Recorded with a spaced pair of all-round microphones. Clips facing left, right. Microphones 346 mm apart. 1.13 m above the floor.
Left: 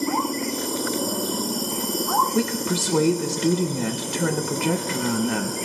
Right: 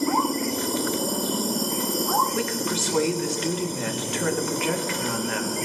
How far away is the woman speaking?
About 1.1 m.